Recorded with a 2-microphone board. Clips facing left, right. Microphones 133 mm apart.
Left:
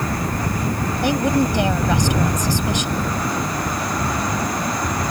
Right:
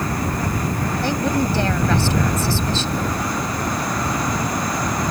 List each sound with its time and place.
1.0 s a woman speaking: 15° left (ahead or behind)